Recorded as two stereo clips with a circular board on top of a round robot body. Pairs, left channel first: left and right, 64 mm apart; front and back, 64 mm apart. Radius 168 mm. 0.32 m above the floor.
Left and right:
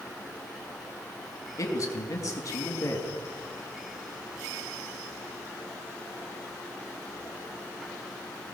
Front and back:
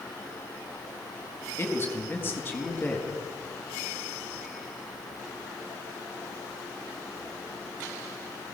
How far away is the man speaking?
About 4.5 m.